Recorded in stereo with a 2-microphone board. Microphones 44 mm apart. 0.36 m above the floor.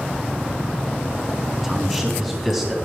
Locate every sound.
1.6 s a man speaking: 5° left (ahead or behind), 3.5 m